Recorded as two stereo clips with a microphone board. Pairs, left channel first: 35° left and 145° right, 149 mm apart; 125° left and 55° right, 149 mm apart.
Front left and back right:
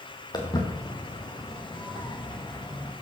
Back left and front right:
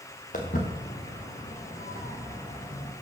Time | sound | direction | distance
0.3 | footsteps | 95° left | 3.5 m